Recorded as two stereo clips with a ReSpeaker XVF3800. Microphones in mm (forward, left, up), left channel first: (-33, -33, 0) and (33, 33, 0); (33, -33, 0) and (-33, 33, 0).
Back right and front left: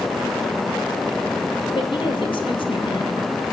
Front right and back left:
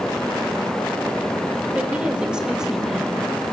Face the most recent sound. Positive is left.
turn(degrees=-135)